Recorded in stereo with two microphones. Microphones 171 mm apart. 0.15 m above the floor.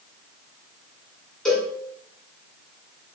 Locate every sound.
1.4 s a cowbell: 5° left (ahead or behind), 1.7 m